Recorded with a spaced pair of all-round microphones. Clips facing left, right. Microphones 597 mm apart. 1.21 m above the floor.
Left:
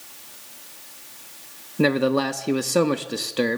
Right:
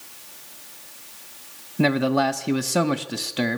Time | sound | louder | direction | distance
1.8 | a man speaking | left 1 dB | 10° right (ahead or behind) | 1.1 m